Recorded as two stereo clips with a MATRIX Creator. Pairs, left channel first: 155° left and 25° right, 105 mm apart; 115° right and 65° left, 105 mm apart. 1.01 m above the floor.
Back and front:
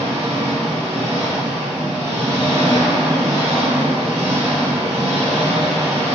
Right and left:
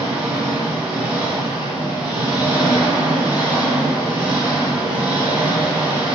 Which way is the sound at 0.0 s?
10° right.